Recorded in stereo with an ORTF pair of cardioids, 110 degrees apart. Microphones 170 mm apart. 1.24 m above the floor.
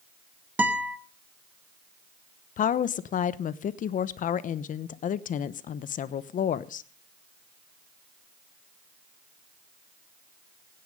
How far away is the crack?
I don't hear a crack.